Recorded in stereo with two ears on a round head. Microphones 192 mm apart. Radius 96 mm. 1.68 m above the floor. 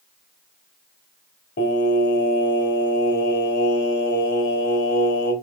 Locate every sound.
1.6 s singing: 45° left (ahead or behind), 1.5 m